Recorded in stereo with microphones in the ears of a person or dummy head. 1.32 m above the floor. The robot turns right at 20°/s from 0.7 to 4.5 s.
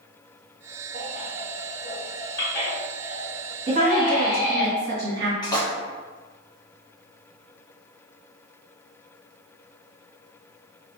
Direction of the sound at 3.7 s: 45° right (ahead or behind).